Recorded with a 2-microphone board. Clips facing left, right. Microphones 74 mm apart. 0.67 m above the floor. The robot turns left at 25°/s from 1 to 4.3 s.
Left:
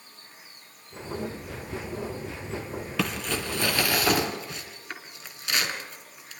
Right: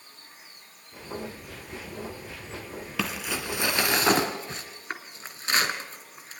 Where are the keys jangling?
I don't hear keys jangling.